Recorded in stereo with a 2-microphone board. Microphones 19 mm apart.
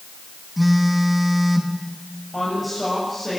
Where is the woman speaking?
Centre (ahead or behind), 7.5 m.